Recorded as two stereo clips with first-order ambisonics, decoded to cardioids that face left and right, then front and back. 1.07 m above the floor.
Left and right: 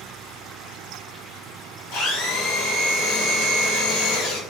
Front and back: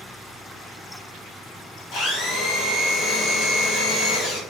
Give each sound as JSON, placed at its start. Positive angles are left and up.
{"t": 1.9, "sound": "a blender", "azimuth_deg": 45, "distance_m": 0.9}